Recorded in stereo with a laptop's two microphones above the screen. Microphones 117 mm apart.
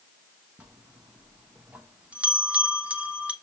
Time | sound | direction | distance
0.6 | a bell | 10° right (ahead or behind) | 0.8 m